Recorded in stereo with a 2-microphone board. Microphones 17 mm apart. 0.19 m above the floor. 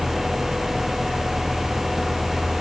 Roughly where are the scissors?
I don't hear scissors.